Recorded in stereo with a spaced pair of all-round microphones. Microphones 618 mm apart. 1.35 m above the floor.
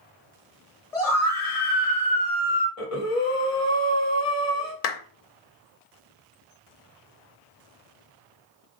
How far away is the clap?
About 0.5 m.